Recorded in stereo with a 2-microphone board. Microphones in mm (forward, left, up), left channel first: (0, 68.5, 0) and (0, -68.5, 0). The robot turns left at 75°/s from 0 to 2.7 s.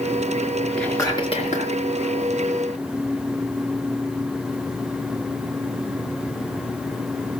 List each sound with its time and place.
0.8 s whispering: 175° left, 4 m; by 1.8 s 105° left, 4 m